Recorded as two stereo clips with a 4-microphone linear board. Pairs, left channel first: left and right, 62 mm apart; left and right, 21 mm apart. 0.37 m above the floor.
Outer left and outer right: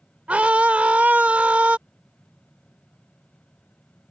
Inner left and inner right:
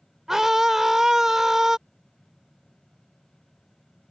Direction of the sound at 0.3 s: 20° right (ahead or behind).